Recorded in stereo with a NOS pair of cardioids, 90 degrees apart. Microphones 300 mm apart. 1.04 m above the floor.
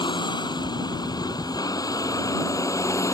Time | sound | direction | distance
0.0 | a vehicle | 15° left | ?